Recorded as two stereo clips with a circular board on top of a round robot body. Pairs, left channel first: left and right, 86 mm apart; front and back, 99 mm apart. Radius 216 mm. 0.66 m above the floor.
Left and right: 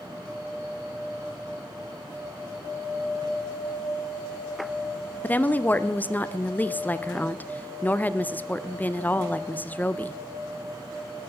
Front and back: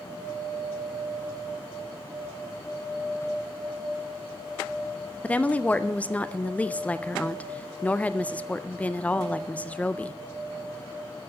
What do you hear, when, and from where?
5.2 s a woman speaking: 55° left, 0.7 m